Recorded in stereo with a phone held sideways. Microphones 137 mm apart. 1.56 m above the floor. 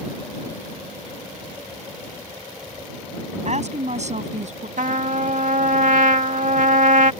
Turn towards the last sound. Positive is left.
turn(degrees=-70)  # may be behind; listen again after turning